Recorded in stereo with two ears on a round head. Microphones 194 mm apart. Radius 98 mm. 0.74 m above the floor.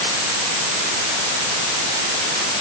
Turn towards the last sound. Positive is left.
No sound to turn to.